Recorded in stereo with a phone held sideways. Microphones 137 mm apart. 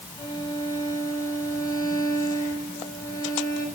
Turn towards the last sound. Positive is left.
turn(degrees=30)  # may be behind; listen again after turning